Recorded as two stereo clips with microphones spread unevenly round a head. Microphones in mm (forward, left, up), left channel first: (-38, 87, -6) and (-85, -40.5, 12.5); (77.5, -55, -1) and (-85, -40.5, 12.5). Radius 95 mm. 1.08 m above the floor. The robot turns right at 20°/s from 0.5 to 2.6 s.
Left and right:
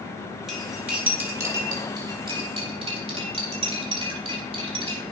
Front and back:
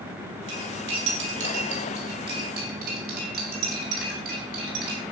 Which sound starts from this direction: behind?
Cutlery clinking, at 0.5 s.